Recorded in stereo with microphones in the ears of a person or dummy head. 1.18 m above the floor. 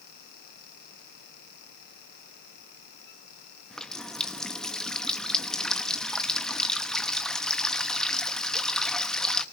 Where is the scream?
I don't hear a scream.